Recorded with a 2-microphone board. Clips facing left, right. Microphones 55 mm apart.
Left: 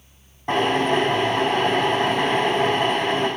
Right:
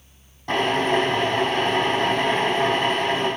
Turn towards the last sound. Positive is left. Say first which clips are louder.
# left 1 dB
turn(degrees=20)  # may be behind; listen again after turning